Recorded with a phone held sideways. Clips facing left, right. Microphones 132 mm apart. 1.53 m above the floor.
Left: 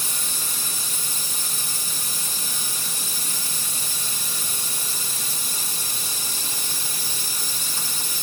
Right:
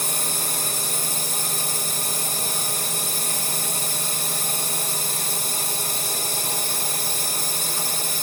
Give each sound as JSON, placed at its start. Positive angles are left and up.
{"t": 0.0, "sound": "a drone", "side_deg": -65}